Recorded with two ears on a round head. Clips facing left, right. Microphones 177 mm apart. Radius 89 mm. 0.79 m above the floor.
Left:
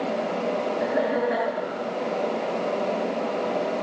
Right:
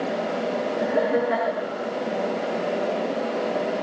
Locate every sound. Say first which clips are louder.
0.8 s laughter: right 3 dB; 35° right (ahead or behind), 9 m